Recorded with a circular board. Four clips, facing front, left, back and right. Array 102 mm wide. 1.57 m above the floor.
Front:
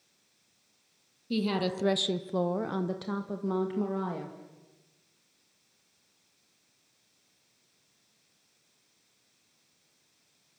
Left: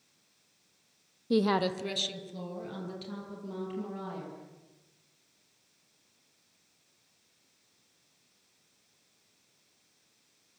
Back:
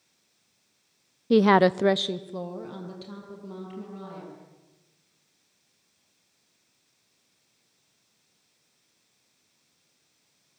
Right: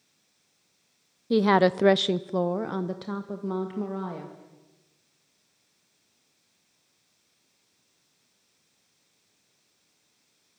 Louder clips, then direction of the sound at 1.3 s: Right 7 dB, back 12 dB; 170° right.